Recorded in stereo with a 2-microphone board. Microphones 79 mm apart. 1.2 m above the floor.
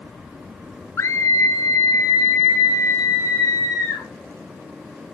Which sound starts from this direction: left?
A scream, at 1.0 s.